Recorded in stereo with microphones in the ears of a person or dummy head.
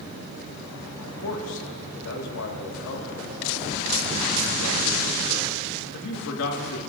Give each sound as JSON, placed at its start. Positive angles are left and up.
{"t": 1.2, "sound": "a man speaking", "side_deg": 85, "distance_m": 1.8}